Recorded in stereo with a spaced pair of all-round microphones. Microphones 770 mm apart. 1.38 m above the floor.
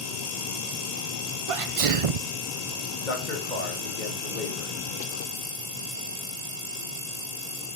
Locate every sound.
1.5 s a sneeze: 50° right (ahead or behind), 0.5 m
3.0 s a man speaking: 75° left (ahead or behind), 2.5 m